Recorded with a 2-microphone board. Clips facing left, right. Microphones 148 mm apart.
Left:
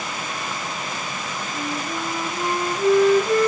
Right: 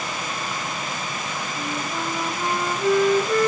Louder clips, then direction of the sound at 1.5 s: Left 2 dB; 35° left (ahead or behind).